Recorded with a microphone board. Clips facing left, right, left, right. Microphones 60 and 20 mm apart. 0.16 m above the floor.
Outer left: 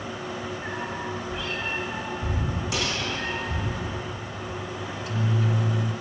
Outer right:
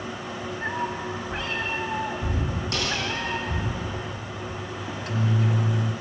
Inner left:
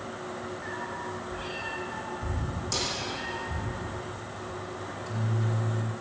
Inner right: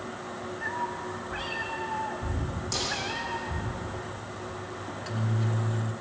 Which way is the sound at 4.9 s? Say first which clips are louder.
Outer right 2 dB, inner right 2 dB; 45° right (ahead or behind).